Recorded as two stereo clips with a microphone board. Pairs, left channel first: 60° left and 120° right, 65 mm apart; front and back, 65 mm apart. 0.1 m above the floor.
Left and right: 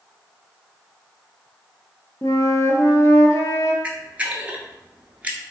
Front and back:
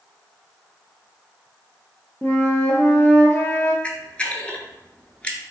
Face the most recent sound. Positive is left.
turn(degrees=-65)